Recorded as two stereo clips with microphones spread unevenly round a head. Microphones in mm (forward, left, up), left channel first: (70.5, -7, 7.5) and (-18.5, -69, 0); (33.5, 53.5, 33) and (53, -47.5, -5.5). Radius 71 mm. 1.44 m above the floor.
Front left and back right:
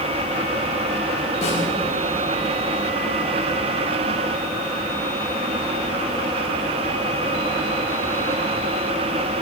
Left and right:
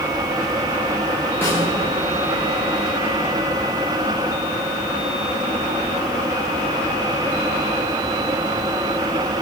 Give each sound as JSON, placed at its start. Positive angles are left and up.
{"t": 1.4, "sound": "a snare drum", "azimuth_deg": 35, "distance_m": 6.5}